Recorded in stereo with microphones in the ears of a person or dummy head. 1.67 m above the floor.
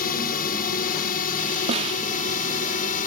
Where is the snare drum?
45° right (ahead or behind).